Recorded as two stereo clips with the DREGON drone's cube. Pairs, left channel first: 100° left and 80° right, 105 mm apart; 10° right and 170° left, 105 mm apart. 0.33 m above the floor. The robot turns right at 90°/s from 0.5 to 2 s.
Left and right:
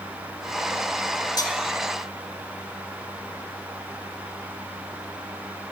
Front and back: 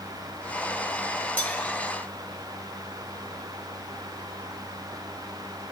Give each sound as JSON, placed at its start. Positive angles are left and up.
{"t": 1.4, "sound": "cutlery clinking", "azimuth_deg": 60, "distance_m": 1.1}